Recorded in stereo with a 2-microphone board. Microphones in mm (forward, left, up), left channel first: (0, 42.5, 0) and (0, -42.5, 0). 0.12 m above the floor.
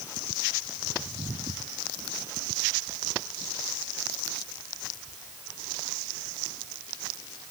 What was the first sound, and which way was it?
Only background noise.